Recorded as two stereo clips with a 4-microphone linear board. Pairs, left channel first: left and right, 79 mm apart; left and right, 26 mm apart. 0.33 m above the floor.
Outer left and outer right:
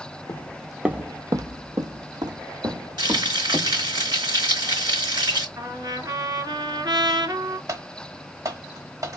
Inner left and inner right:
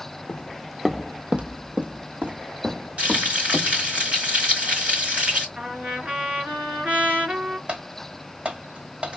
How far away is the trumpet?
About 1.8 m.